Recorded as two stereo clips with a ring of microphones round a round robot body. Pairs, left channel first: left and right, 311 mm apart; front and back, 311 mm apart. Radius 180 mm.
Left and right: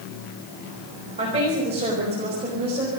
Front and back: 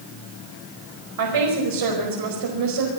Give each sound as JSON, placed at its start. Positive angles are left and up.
{"t": 1.2, "sound": "a woman speaking", "azimuth_deg": -165, "distance_m": 5.5}